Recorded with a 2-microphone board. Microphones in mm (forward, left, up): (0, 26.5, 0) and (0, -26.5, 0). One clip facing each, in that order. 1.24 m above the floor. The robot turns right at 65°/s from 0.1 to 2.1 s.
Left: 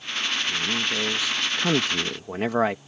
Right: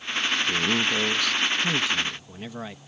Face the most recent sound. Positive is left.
turn(degrees=70)